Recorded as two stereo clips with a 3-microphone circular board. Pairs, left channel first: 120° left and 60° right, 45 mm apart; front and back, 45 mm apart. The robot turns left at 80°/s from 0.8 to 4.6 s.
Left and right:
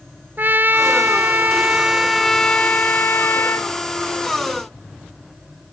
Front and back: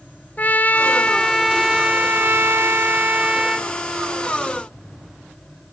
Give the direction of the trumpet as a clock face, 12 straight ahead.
1 o'clock.